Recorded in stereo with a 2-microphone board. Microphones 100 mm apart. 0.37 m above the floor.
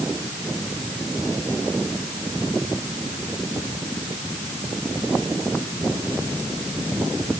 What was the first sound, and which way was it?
Only background noise.